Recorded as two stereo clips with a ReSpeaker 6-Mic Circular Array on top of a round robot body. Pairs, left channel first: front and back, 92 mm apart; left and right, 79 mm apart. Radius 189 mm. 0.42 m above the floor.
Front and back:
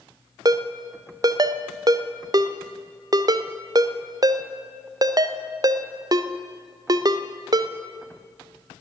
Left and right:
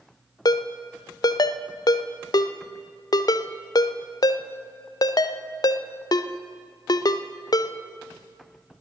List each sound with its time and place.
0.5 s a ringtone: 130° left, 0.5 m